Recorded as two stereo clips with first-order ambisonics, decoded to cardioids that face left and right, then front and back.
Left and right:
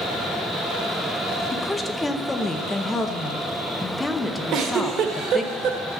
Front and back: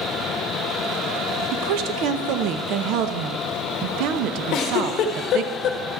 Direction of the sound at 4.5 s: 45° right.